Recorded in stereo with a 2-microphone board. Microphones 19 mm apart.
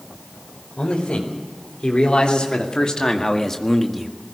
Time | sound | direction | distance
0.8 | a man speaking | 70° left (ahead or behind) | 4.5 m